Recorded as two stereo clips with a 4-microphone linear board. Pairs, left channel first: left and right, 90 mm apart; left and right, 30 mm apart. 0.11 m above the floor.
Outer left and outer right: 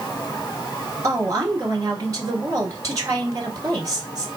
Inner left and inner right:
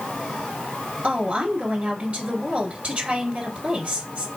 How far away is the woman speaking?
About 1.6 m.